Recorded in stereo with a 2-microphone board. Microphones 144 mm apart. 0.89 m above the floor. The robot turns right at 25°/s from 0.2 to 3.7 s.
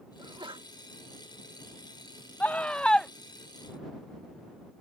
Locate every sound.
0.2 s a sneeze: 30° right (ahead or behind); by 0.7 s 40° right (ahead or behind)
2.4 s a scream: 10° left (ahead or behind); by 3.1 s 5° left (ahead or behind)